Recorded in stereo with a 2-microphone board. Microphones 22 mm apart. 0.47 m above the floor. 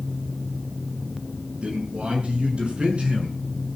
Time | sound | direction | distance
1.6 | a man speaking | 70° right (ahead or behind) | 6.5 m